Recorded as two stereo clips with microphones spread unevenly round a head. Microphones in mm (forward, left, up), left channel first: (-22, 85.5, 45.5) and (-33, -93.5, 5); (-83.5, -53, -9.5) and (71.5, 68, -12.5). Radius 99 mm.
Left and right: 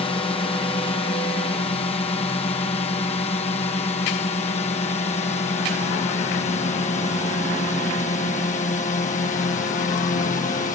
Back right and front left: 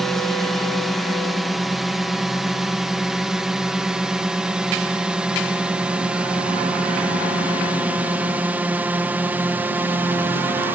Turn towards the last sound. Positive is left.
turn(degrees=110)